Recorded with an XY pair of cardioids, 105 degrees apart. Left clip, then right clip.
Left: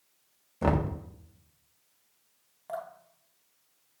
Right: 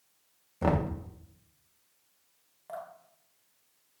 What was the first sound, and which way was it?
Knocking, 5° left.